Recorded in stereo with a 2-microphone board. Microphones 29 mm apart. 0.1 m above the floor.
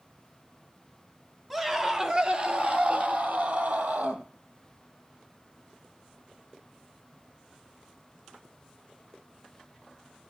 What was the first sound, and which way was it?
A scream, 10° right (ahead or behind).